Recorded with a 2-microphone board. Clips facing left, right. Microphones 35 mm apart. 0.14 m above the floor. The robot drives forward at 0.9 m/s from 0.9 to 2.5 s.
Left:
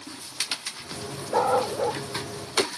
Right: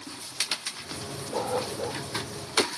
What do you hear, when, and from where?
1.3 s a dog barking: 60° left (ahead or behind); by 2.0 s 55° left (ahead or behind)